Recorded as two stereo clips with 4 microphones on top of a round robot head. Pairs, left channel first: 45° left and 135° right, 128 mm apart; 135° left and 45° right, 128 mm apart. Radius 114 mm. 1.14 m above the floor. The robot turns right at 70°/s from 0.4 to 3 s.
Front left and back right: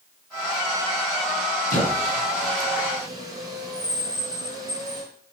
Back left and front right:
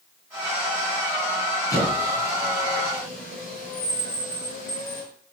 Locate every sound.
1.7 s a squeak: 70° left, 3 m; by 5.0 s 160° left, 3 m